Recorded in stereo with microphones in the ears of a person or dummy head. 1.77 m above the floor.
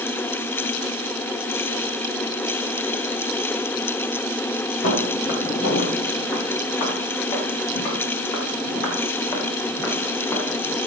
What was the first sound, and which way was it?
Footsteps, 45° left (ahead or behind).